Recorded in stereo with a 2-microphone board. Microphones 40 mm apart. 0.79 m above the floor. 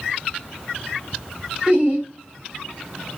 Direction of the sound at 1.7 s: 15° right (ahead or behind).